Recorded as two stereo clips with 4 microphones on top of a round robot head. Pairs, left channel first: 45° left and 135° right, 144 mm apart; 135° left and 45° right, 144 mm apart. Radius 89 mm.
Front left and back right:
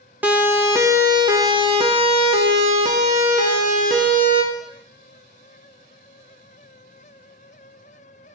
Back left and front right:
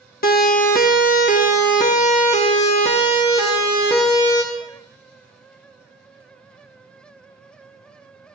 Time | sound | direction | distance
0.2 | a siren | 150° left | 2.5 m